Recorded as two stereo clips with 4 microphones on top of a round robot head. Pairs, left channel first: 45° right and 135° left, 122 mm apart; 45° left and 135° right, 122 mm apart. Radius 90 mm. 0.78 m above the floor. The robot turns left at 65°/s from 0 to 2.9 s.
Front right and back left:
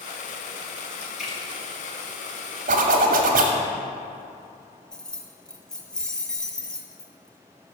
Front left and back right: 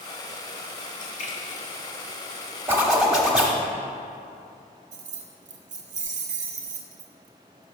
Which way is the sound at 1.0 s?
60° left.